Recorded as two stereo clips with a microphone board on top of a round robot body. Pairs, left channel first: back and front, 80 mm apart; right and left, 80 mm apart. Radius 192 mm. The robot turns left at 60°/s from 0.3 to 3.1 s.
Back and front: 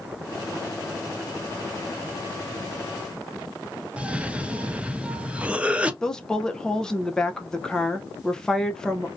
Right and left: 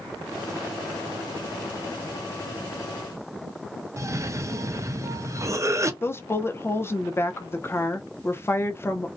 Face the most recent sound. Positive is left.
turn(degrees=-105)